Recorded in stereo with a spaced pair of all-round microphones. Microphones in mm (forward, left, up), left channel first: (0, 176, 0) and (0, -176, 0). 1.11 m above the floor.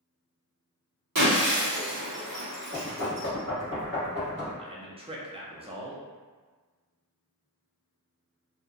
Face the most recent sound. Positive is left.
turn(degrees=-15)  # may be behind; listen again after turning